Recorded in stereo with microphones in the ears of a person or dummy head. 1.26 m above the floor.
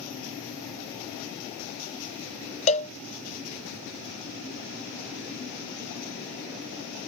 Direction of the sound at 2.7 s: 35° left (ahead or behind).